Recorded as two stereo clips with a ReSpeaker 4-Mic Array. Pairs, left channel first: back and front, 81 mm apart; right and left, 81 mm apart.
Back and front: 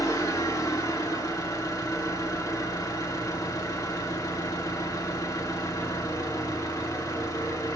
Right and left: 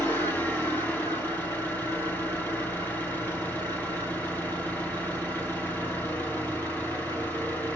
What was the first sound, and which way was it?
An engine running, 150° right.